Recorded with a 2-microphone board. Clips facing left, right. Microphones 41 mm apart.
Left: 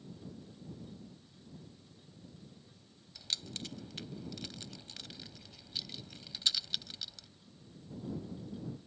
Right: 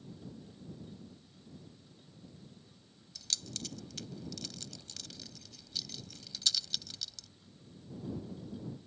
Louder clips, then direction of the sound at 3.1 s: Left 1 dB; 20° left (ahead or behind).